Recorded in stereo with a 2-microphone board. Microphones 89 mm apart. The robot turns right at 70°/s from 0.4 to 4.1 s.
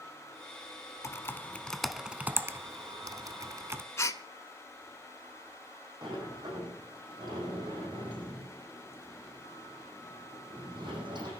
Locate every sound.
1.0 s typing on a keyboard: 35° left (ahead or behind), 0.8 m; by 3.8 s 25° right (ahead or behind), 0.8 m
4.0 s a gasp: 35° left (ahead or behind), 0.6 m; by 4.2 s 40° left (ahead or behind), 0.6 m
6.0 s a sliding door: 60° right (ahead or behind), 6.5 m